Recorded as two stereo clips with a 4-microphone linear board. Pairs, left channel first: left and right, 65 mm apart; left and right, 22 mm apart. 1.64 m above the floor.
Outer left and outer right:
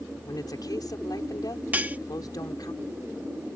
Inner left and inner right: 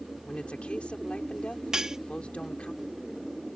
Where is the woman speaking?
85° left.